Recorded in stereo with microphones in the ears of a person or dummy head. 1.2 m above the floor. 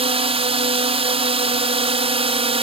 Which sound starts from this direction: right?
A drone, at 0.0 s.